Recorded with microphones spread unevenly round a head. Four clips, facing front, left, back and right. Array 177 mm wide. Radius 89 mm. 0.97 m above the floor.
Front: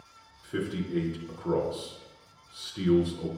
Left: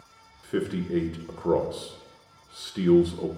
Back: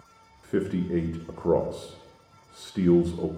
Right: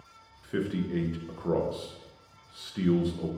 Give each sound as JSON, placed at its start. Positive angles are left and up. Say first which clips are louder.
{"t": 0.4, "sound": "a man speaking", "louder": "left 2 dB, back 5 dB", "azimuth_deg": 155, "distance_m": 0.5}